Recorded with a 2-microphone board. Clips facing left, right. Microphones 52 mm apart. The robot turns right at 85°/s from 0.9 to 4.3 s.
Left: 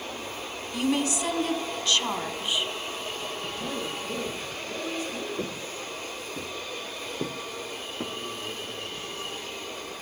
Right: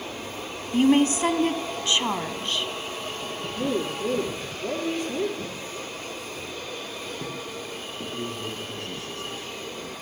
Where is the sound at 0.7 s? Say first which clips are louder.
Right 7 dB; 120° right, 1.2 m; by 2.7 s 30° left, 1.2 m.